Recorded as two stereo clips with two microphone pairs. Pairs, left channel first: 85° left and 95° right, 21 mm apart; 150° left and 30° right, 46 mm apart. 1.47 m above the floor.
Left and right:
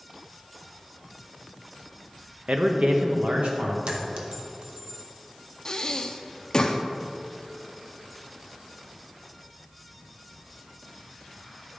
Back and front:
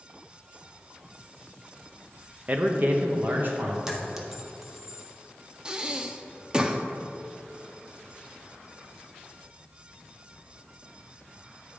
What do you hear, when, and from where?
2.5 s a man speaking: 85° right, 0.8 m; by 3.8 s 70° right, 2 m
3.9 s a clink: 110° right, 1.0 m
5.7 s breathing: 35° left, 0.6 m